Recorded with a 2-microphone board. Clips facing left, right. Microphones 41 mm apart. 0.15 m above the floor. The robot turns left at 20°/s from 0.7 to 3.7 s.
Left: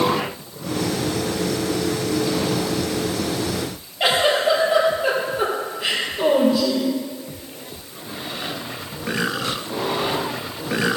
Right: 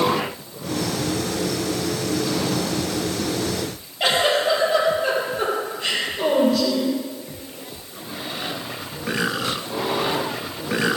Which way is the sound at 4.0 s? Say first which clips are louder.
Left 1 dB; 10° left (ahead or behind).